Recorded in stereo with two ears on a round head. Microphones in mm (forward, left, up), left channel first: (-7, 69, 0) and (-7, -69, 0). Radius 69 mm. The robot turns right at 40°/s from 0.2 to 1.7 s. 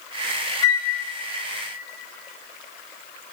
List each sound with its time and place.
0.6 s a flute: 25° left (ahead or behind), 1.1 m; by 0.8 s 20° left (ahead or behind), 1.1 m